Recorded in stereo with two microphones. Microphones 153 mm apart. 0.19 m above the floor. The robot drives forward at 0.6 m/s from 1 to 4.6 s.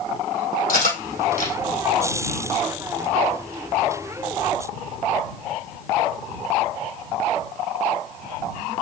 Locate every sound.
0.7 s cutlery clinking: 75° left (ahead or behind), 3.5 m